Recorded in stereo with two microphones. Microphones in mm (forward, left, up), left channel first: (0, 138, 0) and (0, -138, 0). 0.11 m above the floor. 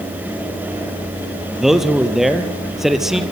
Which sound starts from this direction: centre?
A man speaking, at 1.6 s.